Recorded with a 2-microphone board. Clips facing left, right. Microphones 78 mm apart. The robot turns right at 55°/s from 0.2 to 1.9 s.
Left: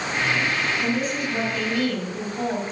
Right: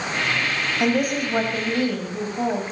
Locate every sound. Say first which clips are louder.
0.8 s a woman speaking: right 3 dB; 80° right, 3.5 m; by 2.6 s 20° right, 3.5 m